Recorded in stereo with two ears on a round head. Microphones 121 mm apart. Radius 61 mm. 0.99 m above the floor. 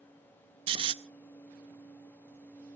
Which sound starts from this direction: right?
Snoring, at 0.7 s.